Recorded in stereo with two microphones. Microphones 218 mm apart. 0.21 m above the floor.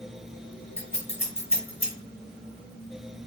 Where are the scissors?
30° left (ahead or behind), 1.5 m.